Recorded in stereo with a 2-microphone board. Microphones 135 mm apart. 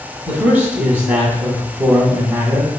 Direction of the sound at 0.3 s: 15° right (ahead or behind).